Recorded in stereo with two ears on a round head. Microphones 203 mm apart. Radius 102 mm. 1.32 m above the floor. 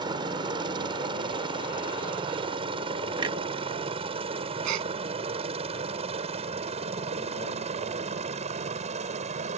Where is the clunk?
20° right (ahead or behind).